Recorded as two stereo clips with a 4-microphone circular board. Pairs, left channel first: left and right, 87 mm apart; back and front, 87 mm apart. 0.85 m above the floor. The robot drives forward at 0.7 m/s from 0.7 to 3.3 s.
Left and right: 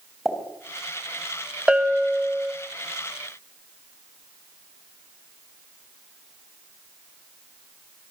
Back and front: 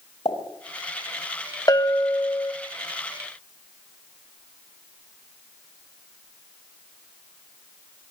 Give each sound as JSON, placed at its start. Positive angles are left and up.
{"t": 0.2, "sound": "a pop", "azimuth_deg": 180, "distance_m": 4.5}
{"t": 1.7, "sound": "a bell", "azimuth_deg": -165, "distance_m": 1.3}